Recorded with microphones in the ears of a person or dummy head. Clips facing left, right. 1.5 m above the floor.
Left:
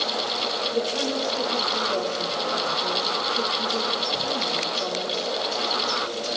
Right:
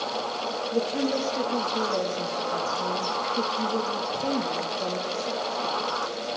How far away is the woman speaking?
About 3 m.